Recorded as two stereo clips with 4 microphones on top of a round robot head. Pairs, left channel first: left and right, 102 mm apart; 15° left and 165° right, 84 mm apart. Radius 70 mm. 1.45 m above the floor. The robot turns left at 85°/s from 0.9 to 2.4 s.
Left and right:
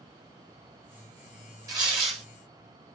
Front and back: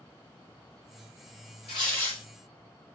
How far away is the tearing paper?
About 0.9 m.